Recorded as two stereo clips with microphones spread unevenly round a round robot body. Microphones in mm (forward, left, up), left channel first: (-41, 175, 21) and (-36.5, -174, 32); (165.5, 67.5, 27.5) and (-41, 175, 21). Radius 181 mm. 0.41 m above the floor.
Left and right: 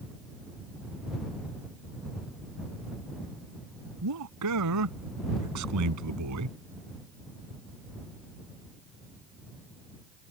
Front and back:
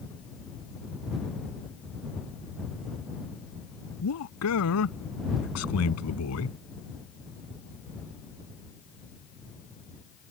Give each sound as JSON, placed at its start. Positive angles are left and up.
{"t": 4.0, "sound": "a man speaking", "azimuth_deg": -45}